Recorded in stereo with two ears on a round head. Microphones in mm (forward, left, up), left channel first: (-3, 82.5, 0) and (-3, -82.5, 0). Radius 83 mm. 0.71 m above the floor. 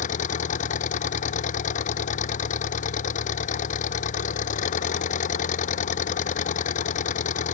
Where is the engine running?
40° left (ahead or behind).